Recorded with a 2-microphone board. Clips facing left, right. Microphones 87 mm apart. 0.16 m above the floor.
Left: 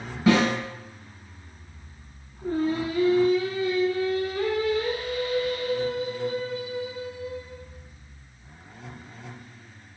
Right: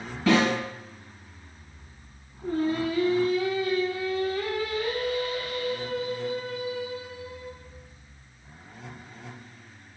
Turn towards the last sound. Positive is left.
turn(degrees=25)  # may be behind; listen again after turning